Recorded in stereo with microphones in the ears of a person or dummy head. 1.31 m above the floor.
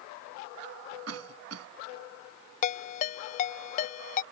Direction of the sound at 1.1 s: 90° right.